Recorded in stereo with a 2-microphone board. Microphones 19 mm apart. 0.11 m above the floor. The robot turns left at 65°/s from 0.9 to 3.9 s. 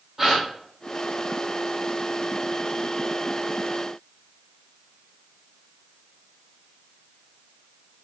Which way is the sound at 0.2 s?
10° right (ahead or behind).